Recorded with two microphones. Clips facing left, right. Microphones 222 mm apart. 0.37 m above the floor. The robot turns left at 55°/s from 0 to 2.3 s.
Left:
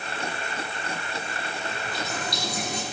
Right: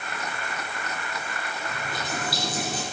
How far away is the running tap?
About 7 m.